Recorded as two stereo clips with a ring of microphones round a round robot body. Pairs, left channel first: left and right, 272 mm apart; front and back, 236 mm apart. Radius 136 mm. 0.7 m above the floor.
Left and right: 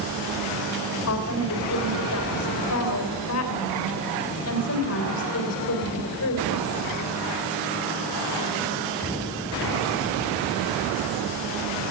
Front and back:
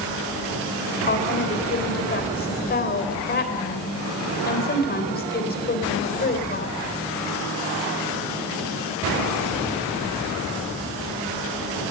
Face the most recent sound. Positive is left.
turn(degrees=50)